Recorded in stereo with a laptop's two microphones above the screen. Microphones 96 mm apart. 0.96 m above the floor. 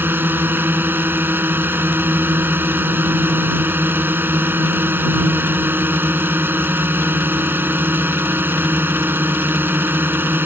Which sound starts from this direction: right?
A drone, at 0.0 s.